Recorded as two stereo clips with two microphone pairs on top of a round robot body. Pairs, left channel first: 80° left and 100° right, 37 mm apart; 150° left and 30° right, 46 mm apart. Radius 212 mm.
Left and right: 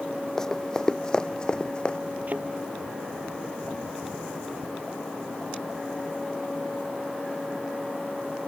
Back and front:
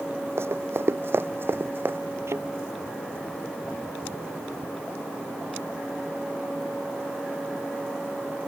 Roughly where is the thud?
Ahead right.